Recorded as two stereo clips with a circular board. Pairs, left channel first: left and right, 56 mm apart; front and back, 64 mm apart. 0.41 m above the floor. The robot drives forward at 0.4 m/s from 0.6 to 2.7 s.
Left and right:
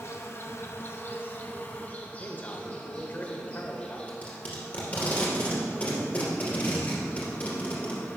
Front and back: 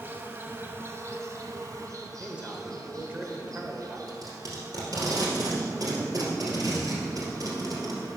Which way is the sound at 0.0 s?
125° left.